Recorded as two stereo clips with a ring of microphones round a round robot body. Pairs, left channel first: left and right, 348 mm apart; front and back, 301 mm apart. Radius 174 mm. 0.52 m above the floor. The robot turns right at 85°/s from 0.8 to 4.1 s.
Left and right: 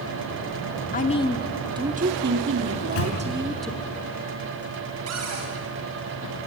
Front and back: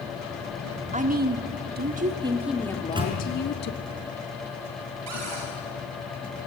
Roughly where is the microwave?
Left.